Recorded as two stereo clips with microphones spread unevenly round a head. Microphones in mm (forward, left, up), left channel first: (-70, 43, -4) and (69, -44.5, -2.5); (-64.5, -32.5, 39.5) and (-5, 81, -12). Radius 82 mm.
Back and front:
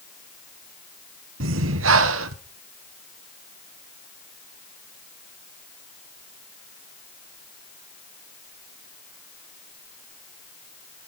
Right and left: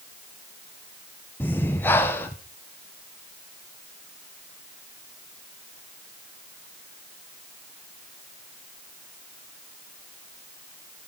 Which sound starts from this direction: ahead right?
Breathing, at 1.4 s.